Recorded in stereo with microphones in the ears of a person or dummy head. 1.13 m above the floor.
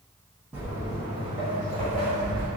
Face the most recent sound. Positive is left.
turn(degrees=-50)  # may be behind; listen again after turning